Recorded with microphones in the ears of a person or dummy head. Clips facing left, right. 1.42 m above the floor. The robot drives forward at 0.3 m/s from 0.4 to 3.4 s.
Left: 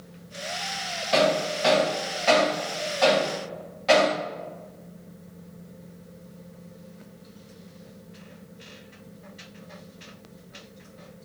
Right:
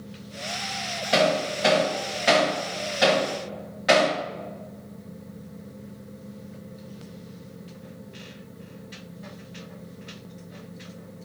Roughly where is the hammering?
Right.